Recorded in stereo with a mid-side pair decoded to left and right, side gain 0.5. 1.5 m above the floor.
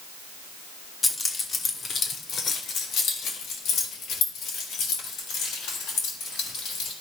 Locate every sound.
1.0 s keys jangling: 25° left, 1.9 m; by 6.9 s 80° left, 7.5 m